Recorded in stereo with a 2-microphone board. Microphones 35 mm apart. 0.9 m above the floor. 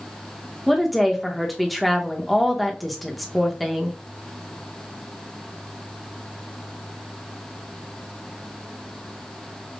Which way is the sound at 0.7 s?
Centre (ahead or behind).